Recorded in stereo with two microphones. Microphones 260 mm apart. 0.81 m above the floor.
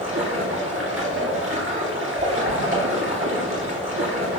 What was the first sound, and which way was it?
Running water, 50° right (ahead or behind).